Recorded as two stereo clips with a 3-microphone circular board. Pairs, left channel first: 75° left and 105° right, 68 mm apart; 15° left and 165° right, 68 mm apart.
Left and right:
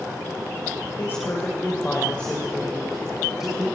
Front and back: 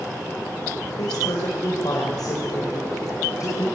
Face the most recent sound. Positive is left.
turn(degrees=-25)